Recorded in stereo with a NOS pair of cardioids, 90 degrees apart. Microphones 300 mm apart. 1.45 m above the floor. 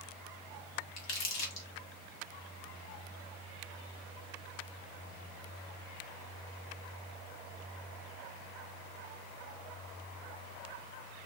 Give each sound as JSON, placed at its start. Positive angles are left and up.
{"t": 1.0, "sound": "crumpling", "azimuth_deg": 60, "distance_m": 1.4}